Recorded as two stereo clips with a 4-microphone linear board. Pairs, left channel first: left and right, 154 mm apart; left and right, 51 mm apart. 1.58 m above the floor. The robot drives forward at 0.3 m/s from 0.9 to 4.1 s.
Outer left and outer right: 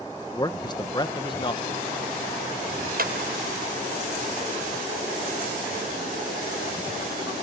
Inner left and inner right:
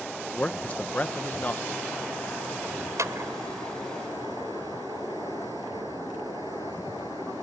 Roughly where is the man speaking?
Left.